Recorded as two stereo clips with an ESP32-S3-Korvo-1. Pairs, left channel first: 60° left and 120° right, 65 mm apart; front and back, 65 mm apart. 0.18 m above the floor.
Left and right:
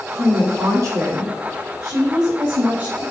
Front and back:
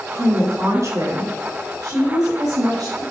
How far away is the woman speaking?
About 2 m.